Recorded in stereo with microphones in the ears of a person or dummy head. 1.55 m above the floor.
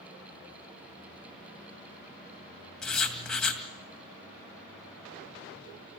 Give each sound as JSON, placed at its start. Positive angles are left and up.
{"t": 2.8, "sound": "writing", "side_deg": 10, "distance_m": 2.0}